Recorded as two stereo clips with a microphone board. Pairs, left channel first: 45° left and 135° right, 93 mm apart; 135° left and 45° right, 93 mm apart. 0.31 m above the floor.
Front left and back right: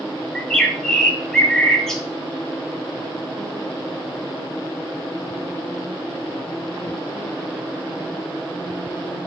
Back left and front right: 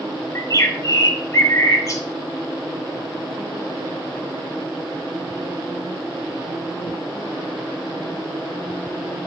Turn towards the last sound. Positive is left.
turn(degrees=125)